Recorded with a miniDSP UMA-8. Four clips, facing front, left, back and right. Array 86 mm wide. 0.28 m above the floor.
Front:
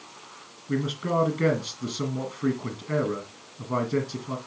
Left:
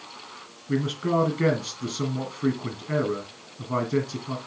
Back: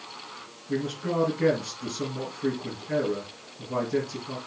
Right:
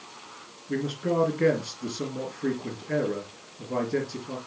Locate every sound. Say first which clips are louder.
0.7 s a man speaking: left 3 dB, front 2 dB; 55° left, 3 m